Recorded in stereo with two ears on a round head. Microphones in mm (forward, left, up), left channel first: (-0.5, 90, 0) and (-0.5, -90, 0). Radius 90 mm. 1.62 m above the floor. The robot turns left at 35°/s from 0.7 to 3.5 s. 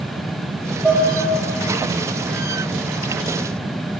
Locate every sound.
0.8 s dishes clattering: 5° right (ahead or behind), 2.5 m; by 1.1 s 15° right (ahead or behind), 2.5 m